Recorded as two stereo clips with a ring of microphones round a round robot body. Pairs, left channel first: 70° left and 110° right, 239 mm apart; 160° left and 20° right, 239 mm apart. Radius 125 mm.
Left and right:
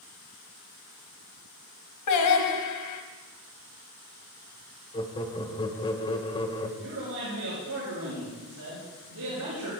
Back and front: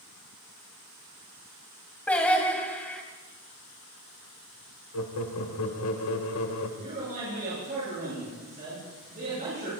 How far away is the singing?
About 2.5 m.